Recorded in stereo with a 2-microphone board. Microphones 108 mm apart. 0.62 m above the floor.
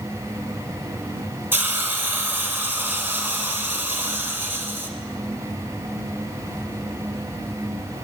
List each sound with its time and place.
1.5 s a hiss: 20° right (ahead or behind), 0.9 m